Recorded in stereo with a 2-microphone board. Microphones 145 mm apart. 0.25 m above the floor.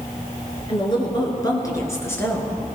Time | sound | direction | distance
0.7 | a woman speaking | 35° left (ahead or behind) | 3.5 m